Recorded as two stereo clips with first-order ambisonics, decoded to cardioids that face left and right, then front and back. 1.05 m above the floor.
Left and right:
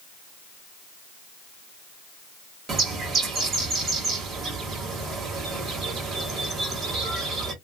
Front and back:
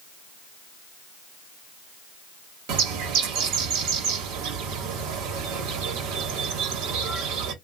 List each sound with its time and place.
2.7 s a bird: 155° right, 1.5 m